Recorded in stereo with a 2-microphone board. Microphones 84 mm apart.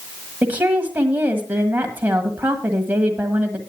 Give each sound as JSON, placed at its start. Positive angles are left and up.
{"t": 0.4, "sound": "a woman speaking", "side_deg": -20, "distance_m": 1.5}